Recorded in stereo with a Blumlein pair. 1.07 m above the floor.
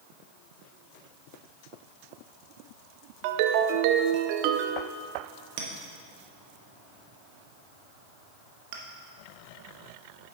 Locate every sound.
3.2 s a ringtone: 45° right, 0.6 m
5.6 s a clink: 50° right, 1.3 m